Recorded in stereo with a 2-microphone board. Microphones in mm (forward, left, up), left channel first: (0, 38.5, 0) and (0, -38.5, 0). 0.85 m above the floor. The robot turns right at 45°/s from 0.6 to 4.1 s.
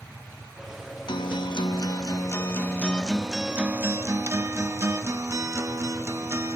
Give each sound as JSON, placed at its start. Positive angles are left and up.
{"t": 1.1, "sound": "a guitar", "azimuth_deg": 85, "distance_m": 0.7}